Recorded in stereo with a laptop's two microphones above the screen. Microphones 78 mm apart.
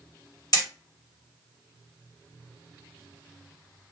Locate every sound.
0.5 s hammering: 50° left (ahead or behind), 1.5 m